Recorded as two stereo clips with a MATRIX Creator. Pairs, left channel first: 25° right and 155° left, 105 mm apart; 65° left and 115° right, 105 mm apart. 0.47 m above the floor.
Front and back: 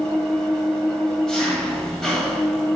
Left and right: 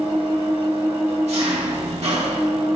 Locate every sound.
0.0 s an engine running: 105° right, 1.0 m